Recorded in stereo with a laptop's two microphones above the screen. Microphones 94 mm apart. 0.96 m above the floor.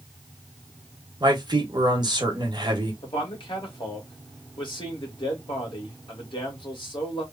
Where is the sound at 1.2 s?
50° right (ahead or behind), 1.1 m.